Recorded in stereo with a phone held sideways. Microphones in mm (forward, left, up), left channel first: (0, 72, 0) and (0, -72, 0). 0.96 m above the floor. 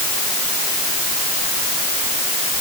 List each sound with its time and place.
Only background noise.